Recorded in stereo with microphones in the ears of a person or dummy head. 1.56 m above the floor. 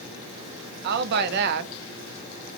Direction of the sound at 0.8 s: 55° right (ahead or behind).